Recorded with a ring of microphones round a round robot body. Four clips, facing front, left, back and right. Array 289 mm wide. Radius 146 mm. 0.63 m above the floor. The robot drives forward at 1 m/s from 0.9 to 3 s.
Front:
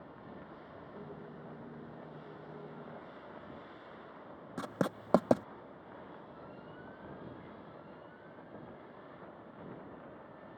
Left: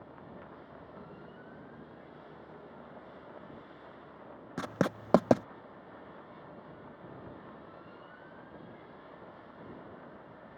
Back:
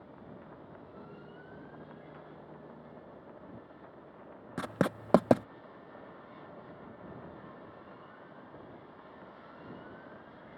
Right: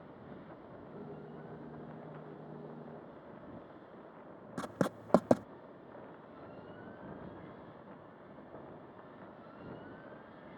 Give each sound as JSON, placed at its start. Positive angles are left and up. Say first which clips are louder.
{"t": 4.6, "sound": "writing", "louder": "left 3 dB, back 3 dB", "azimuth_deg": 140}